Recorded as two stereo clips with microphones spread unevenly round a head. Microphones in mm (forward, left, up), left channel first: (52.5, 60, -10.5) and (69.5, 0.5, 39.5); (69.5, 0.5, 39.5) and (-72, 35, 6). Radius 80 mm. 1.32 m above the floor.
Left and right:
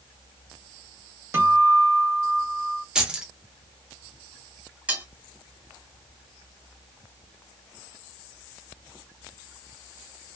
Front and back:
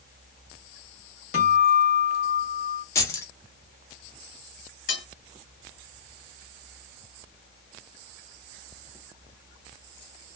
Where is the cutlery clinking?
15° right, 1.5 m.